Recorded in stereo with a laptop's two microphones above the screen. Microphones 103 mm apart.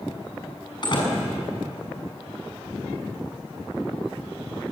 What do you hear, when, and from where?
0.8 s a door slam: 45° left (ahead or behind), 7.5 m